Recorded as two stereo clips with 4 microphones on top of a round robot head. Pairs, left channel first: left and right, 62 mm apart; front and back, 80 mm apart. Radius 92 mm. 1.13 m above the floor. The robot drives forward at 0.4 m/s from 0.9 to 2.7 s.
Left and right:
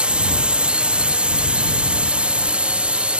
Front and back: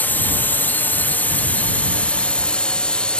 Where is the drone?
40° right; by 3.2 s 55° right.